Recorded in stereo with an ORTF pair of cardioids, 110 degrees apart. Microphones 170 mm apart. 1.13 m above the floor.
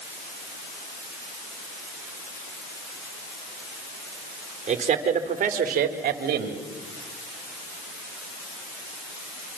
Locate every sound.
4.7 s a man speaking: 40° right, 4 m; by 6.6 s 75° right, 2.5 m